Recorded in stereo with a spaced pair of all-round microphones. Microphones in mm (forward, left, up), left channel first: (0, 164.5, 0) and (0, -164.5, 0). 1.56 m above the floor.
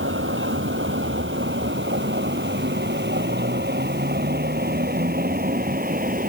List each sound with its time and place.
0.0 s a vehicle: 35° right (ahead or behind); by 6.3 s 25° right (ahead or behind)